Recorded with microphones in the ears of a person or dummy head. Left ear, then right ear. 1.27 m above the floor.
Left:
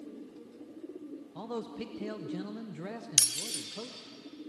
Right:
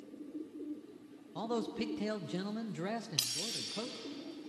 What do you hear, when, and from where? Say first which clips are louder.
1.4 s a man speaking: right 3 dB; 15° right (ahead or behind), 0.5 m
3.2 s breaking glass: left 8 dB; 75° left (ahead or behind), 2.5 m